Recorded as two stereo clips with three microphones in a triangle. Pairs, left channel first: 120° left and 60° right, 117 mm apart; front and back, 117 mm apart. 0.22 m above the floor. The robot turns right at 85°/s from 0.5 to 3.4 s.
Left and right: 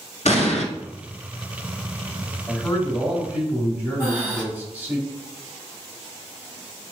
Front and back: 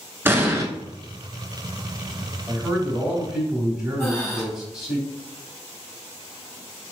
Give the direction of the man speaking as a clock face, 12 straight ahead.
6 o'clock.